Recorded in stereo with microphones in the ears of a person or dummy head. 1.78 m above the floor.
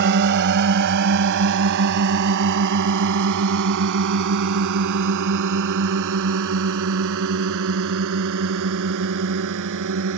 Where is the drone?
55° right (ahead or behind); by 10.2 s 70° right (ahead or behind).